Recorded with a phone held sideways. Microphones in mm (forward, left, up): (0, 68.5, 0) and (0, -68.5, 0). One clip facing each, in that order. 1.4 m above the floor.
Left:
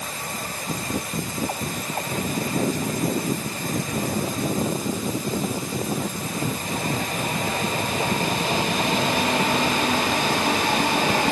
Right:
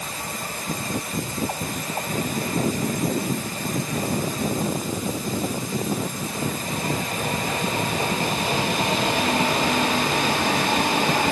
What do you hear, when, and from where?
Only background noise.